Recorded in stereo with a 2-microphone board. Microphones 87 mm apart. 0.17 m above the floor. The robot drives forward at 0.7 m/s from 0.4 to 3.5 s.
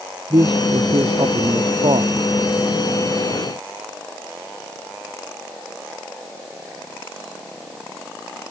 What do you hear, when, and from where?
0.3 s a man speaking: 70° right (ahead or behind); by 2.1 s 75° right (ahead or behind)